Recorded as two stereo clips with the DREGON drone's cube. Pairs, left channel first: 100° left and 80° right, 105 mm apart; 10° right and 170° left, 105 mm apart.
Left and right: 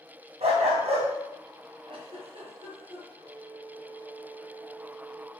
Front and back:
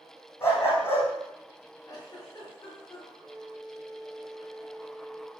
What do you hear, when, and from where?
0.4 s a dog barking: 75° right, 5 m
1.9 s a giggle: 60° right, 4.5 m
3.2 s a flute: 115° right, 1.5 m